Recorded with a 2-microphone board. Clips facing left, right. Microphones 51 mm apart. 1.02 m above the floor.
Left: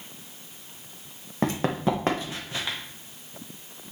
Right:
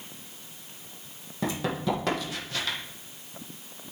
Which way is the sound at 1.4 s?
50° left (ahead or behind).